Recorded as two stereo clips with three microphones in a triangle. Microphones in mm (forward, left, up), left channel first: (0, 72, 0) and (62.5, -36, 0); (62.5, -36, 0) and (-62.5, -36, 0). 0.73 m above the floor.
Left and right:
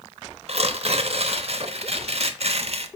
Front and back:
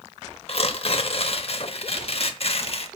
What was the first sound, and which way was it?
Tearing paper, 30° right.